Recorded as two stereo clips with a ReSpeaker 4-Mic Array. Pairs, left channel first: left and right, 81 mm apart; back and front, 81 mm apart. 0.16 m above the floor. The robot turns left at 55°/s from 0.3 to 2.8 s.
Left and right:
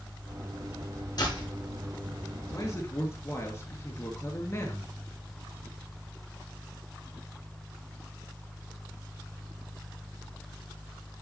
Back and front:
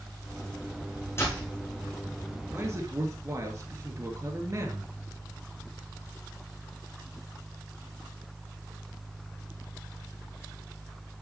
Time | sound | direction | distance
1.2 | a door slam | 125° left | 6.5 m
2.5 | a man speaking | 55° left | 3 m